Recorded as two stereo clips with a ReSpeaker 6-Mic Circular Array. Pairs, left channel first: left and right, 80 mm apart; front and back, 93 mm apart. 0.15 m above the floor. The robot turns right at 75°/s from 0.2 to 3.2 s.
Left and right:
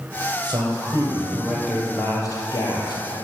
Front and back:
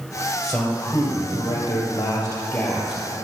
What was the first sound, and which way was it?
A man speaking, 95° right.